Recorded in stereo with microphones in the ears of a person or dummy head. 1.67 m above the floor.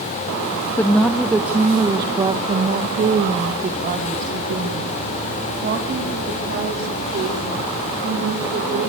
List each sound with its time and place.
0.8 s a woman speaking: 15° left (ahead or behind), 0.8 m; by 8.9 s 50° right (ahead or behind), 4.5 m